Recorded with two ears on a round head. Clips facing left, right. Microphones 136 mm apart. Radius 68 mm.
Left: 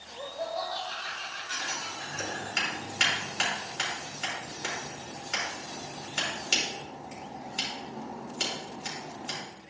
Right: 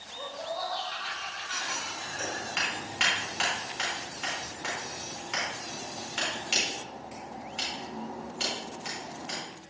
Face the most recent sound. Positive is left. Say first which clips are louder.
# even
turn(degrees=50)  # may be behind; listen again after turning